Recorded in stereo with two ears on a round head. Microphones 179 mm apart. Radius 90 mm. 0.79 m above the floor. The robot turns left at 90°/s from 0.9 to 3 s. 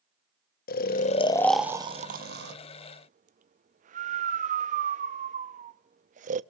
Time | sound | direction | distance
0.7 | snoring | 45° left (ahead or behind) | 0.7 m